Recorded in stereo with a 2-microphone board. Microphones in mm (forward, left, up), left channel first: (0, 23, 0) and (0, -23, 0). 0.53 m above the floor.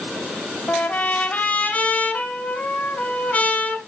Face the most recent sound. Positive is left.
turn(degrees=35)  # may be behind; listen again after turning